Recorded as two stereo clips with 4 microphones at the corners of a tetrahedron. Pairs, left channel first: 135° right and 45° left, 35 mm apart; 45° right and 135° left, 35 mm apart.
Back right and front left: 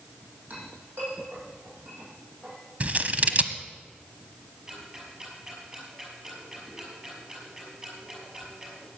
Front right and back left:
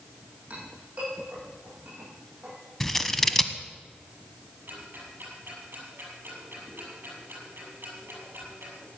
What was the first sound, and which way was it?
A clink, 80° left.